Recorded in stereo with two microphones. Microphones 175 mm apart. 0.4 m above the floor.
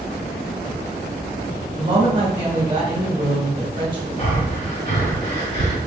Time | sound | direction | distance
1.8 | a woman speaking | 30° right (ahead or behind) | 1.5 m
4.2 | breathing | 40° left (ahead or behind) | 1.2 m